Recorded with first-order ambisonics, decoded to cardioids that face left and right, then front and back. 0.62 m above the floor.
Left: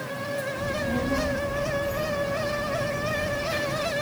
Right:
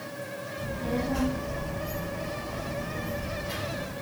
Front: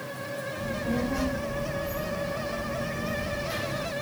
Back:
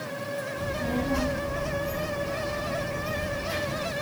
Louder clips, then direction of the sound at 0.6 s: Left 4 dB, even; 135° left.